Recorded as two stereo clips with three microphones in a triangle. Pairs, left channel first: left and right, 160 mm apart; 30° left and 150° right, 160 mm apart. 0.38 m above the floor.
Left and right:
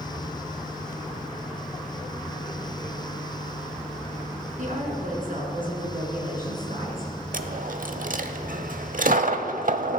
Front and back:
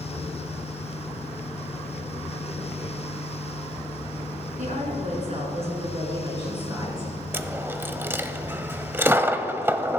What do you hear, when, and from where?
4.6 s a woman speaking: 120° right, 4 m; by 7.1 s 85° right, 4.5 m
7.3 s a dropped coin: 75° right, 0.7 m